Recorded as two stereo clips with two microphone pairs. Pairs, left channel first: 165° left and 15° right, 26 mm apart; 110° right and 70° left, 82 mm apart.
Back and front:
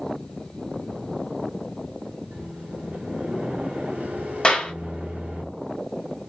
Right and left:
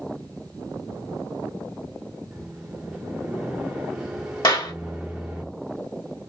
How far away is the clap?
About 1.4 m.